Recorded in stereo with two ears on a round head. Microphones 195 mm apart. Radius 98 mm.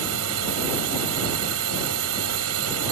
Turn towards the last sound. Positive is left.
turn(degrees=-80)